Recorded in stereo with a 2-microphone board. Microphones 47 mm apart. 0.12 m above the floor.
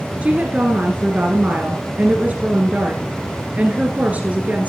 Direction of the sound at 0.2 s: 30° right (ahead or behind).